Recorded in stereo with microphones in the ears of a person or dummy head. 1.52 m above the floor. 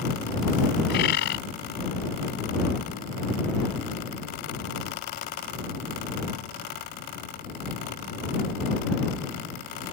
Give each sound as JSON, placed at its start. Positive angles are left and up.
{"t": 0.9, "sound": "a bird", "side_deg": 65}